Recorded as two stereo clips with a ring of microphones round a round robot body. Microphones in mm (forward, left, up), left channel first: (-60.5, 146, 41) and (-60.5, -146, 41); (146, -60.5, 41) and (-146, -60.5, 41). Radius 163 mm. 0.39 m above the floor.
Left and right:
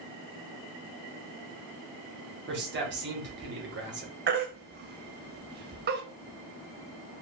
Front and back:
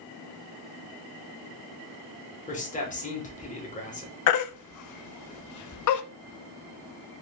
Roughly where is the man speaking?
Ahead right.